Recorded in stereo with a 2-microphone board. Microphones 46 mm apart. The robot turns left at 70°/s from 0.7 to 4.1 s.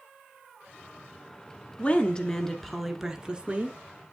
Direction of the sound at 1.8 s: 65° left.